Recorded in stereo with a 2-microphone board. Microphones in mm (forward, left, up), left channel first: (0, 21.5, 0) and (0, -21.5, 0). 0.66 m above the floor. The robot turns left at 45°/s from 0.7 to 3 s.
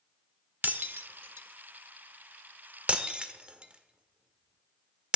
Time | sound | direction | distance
0.6 | breaking glass | 50° right (ahead or behind) | 1.3 m